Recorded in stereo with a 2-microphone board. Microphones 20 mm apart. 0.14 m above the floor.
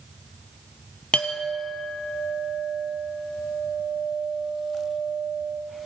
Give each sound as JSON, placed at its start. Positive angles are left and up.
{"t": 1.1, "sound": "a clink", "side_deg": 70, "distance_m": 2.5}